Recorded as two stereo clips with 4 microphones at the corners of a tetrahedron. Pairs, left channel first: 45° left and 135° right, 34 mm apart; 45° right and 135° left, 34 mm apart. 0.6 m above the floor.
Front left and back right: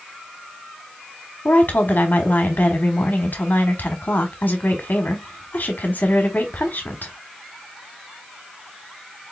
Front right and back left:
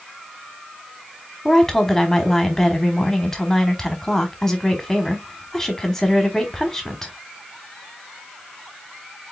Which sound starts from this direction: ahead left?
A woman speaking, at 1.4 s.